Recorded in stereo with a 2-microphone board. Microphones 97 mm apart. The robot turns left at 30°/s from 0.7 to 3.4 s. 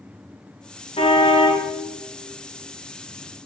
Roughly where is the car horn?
Left.